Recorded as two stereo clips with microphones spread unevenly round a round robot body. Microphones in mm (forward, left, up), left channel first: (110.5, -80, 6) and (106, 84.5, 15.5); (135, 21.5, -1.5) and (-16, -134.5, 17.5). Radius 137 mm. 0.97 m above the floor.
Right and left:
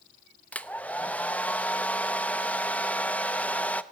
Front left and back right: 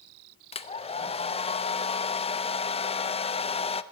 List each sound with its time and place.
0.5 s a hair dryer: 10° right, 0.7 m